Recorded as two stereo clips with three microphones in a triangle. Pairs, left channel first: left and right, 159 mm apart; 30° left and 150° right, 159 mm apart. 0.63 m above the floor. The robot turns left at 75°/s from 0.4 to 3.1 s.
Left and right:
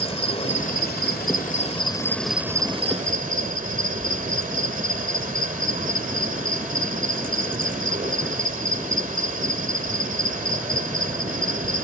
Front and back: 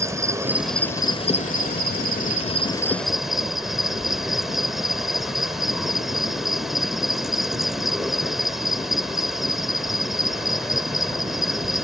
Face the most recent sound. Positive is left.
turn(degrees=-60)